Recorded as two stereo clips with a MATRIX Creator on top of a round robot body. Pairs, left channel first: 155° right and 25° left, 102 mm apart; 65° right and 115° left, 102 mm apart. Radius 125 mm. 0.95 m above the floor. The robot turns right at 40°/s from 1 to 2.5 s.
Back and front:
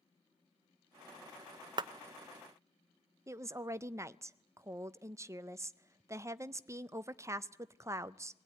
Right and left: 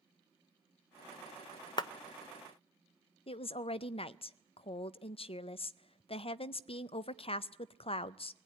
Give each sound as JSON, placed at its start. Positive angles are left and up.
{"t": 1.8, "sound": "a clap", "azimuth_deg": -20, "distance_m": 0.6}
{"t": 3.3, "sound": "a woman speaking", "azimuth_deg": -40, "distance_m": 0.6}